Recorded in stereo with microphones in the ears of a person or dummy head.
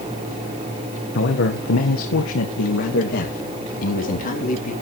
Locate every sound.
1.1 s a man speaking: 55° left (ahead or behind), 1.9 m; by 4.7 s 50° left (ahead or behind), 4.5 m